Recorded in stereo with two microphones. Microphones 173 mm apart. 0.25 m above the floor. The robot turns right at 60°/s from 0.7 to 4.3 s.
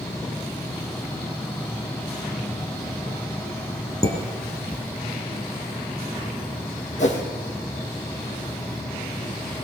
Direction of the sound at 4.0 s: 20° left (ahead or behind).